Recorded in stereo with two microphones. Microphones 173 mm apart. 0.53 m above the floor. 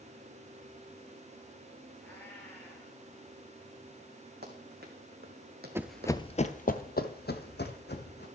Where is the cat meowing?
15° left (ahead or behind), 5.5 m.